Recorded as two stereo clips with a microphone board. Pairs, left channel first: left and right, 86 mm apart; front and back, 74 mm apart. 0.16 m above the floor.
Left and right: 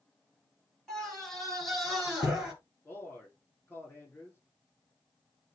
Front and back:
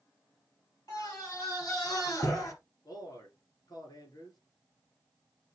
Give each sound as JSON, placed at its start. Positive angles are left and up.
{"t": 0.9, "sound": "a scream", "azimuth_deg": 5, "distance_m": 3.5}
{"t": 2.9, "sound": "a man speaking", "azimuth_deg": 20, "distance_m": 7.0}